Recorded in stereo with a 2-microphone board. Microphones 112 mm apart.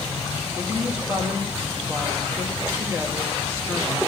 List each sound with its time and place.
0.6 s a woman speaking: 25° right (ahead or behind), 2 m